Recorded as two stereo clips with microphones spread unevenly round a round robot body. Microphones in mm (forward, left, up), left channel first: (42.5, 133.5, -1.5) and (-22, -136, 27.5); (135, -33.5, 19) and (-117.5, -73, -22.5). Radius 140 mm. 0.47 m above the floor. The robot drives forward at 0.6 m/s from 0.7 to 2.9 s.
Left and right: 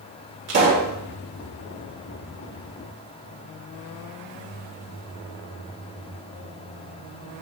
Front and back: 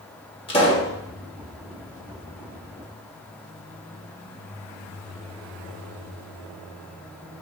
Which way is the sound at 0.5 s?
60° right.